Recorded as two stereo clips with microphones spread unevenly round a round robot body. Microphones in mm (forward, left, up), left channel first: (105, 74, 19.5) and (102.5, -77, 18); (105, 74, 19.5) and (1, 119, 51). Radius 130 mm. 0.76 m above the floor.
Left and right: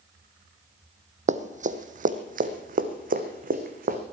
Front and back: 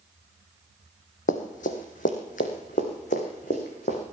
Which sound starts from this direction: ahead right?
Running footsteps, at 1.3 s.